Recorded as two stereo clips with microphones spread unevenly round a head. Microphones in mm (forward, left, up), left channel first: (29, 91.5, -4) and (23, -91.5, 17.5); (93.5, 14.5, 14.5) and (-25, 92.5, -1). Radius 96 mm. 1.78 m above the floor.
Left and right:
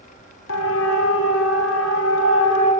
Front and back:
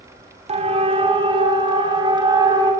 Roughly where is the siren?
Left.